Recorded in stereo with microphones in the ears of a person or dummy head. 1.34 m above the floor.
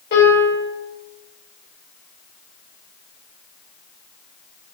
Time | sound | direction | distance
0.1 | a piano | 65° left (ahead or behind) | 3 m